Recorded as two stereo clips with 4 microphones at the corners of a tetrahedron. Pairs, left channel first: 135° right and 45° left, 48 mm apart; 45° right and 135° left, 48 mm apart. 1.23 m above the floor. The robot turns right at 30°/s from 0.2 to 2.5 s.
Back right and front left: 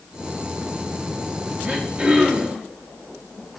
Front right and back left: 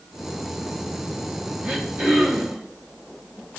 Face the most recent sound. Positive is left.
turn(degrees=115)